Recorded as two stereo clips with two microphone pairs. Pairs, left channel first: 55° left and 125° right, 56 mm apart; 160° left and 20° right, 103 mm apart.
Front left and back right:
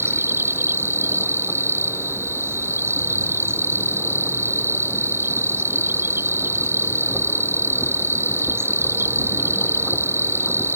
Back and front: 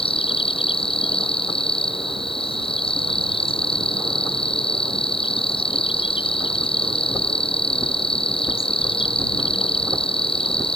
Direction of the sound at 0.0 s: 170° right.